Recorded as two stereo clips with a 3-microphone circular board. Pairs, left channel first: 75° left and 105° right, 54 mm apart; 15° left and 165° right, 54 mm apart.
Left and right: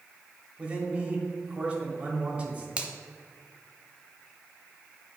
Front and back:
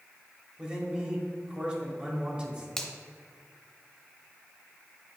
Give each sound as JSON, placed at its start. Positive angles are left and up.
{"t": 0.6, "sound": "a man speaking", "azimuth_deg": -130, "distance_m": 1.3}
{"t": 2.8, "sound": "a finger snap", "azimuth_deg": -60, "distance_m": 0.8}